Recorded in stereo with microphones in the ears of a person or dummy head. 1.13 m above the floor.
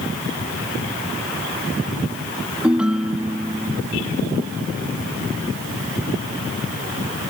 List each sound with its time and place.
2.6 s a ringtone: 5° right (ahead or behind)